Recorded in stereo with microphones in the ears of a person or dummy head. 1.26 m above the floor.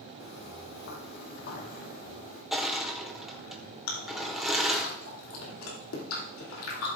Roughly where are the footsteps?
Left.